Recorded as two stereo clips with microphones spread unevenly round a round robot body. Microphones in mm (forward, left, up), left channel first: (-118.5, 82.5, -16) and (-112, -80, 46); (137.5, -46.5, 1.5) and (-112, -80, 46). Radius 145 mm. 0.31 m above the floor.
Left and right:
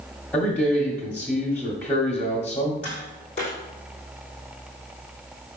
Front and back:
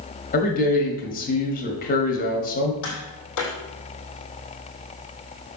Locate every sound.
0.3 s a man speaking: 35° left, 1.2 m
2.8 s tapping: 25° left, 3 m